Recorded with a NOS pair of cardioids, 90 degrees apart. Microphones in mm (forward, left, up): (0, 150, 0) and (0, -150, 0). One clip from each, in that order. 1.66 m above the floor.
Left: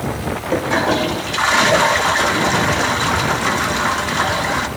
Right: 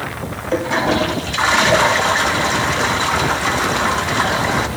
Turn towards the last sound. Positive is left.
turn(degrees=5)